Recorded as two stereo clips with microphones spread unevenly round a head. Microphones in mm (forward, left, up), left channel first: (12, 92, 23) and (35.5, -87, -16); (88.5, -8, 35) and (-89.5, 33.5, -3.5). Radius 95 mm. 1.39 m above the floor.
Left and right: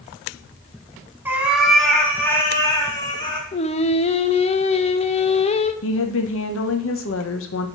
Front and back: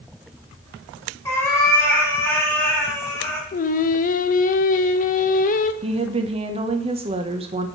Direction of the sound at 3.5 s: 35° left.